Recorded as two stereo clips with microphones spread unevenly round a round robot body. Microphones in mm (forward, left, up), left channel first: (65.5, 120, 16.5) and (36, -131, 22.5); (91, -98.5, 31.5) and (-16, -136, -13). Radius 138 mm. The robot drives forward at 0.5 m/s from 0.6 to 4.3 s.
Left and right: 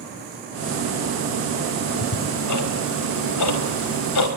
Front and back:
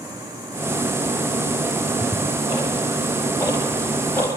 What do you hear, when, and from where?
1.9 s ticking: 90° left, 4.5 m; by 4.3 s 110° left, 4.5 m